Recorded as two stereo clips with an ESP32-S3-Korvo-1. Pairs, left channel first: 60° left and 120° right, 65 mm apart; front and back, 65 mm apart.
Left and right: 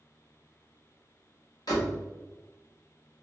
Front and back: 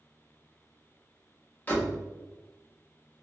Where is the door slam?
65° left, 1.1 m.